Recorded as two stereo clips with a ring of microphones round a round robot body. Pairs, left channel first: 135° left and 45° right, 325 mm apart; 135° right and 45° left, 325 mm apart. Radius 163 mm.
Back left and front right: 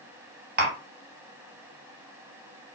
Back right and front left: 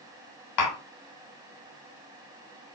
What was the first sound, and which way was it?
Tapping, 110° right.